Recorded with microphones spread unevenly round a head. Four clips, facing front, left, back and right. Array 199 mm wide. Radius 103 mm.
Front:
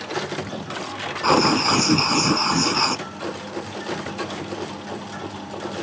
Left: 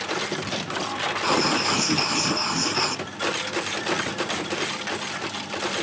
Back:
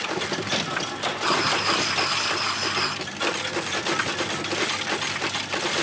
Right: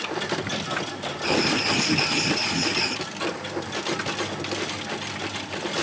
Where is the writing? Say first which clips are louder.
Even, front 7 dB; straight ahead.